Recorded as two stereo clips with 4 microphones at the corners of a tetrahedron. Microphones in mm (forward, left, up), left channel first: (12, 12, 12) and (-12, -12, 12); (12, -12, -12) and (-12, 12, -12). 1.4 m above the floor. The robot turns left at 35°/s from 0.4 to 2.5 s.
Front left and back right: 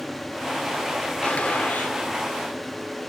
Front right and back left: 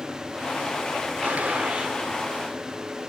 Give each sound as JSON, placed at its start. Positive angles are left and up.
{"t": 1.2, "sound": "a gunshot", "azimuth_deg": 95, "distance_m": 2.5}